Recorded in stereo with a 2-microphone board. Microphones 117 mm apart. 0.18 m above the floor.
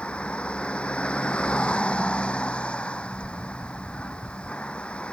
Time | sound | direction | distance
0.0 | a vehicle | 10° left (ahead or behind) | ?